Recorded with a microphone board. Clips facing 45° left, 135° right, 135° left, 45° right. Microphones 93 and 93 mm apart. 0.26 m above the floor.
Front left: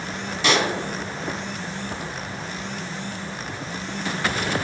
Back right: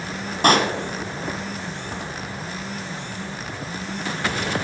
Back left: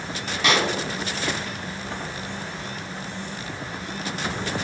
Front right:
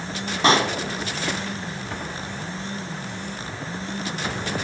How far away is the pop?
About 1.2 m.